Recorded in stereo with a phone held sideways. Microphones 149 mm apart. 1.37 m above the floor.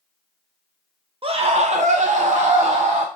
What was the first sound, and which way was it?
A scream, 40° right (ahead or behind).